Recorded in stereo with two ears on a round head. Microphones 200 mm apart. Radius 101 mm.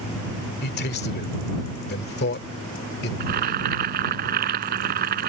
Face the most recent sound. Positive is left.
turn(degrees=-45)  # may be behind; listen again after turning